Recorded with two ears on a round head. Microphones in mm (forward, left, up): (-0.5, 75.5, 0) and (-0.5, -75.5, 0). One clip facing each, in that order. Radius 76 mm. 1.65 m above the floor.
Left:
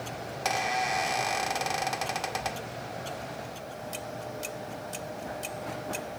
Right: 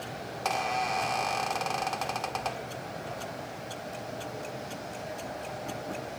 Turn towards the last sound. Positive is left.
turn(degrees=10)  # may be behind; listen again after turning